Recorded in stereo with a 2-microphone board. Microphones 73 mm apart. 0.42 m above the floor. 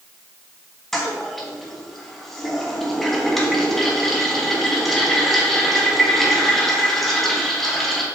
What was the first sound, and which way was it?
A toilet flushing, centre (ahead or behind).